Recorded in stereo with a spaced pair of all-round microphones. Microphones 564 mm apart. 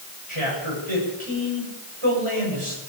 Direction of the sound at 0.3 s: 60° right (ahead or behind).